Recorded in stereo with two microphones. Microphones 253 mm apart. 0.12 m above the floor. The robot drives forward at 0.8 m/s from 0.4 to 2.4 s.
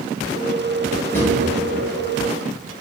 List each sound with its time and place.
1.1 s a drawer: 10° left (ahead or behind), 1.1 m